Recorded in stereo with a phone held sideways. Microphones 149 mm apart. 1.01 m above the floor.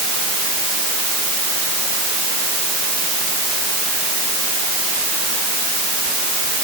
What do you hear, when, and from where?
Only background noise.